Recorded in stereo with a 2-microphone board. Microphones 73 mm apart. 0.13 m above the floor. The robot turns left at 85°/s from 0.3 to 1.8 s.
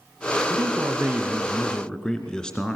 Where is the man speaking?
85° right, 2.0 m; by 2.8 s 160° left, 2.0 m.